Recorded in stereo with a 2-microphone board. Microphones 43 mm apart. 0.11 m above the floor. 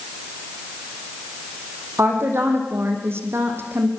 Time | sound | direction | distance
2.0 | a woman speaking | 70° right (ahead or behind) | 6 m